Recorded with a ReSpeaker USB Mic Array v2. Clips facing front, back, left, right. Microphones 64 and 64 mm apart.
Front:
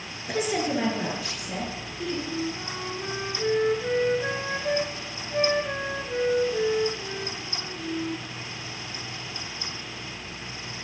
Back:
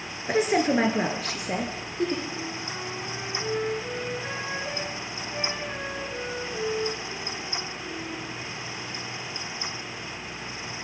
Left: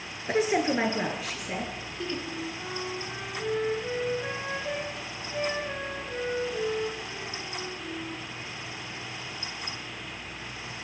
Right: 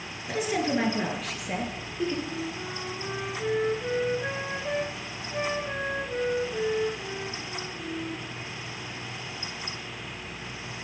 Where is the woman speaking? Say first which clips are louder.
Back 4 dB, left 2 dB; 135° left, 1.6 m; by 2.1 s 160° right, 2.5 m.